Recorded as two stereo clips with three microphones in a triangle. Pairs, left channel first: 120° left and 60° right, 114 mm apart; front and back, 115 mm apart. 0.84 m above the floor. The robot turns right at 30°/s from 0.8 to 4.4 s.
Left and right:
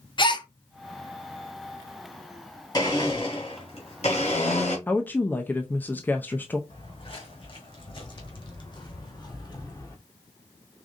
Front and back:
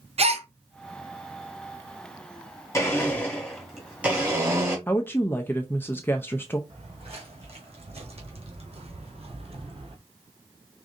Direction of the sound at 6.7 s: 155° left.